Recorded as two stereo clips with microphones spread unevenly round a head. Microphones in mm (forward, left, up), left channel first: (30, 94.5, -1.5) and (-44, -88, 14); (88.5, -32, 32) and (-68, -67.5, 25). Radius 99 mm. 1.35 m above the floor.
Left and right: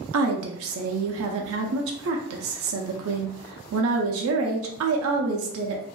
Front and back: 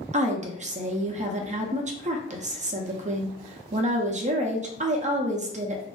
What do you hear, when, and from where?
0.1 s a woman speaking: 125° right, 0.5 m